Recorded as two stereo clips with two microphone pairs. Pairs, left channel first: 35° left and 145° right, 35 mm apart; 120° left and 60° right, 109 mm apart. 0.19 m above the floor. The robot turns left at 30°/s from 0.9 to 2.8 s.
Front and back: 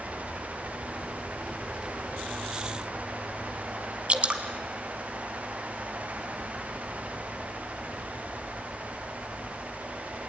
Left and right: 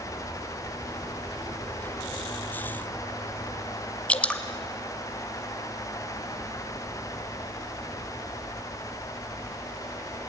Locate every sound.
4.1 s dripping: 165° right, 1.4 m